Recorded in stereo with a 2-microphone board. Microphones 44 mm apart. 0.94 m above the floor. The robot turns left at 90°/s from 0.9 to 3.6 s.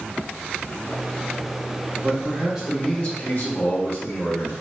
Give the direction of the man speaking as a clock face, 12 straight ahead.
4 o'clock.